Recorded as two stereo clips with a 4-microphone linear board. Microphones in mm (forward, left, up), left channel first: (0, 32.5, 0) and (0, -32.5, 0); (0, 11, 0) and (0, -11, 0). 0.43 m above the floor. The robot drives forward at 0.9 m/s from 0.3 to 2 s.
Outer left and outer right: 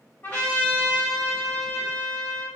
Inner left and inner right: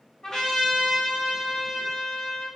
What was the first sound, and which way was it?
A trumpet, 30° left (ahead or behind).